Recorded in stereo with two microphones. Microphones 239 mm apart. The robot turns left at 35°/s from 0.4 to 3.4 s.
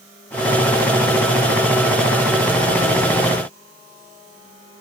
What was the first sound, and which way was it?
Only background noise.